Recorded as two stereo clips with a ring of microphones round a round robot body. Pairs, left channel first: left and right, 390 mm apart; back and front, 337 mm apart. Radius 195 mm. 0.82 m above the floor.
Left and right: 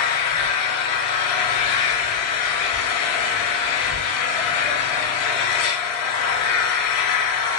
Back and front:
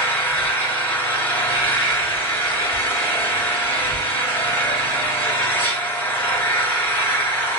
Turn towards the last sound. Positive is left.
turn(degrees=95)